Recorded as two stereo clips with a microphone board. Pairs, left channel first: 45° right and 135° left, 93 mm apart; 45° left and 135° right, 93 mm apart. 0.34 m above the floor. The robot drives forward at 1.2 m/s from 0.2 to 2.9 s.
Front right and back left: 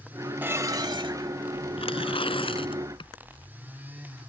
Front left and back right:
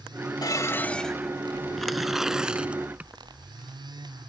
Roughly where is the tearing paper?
Ahead right.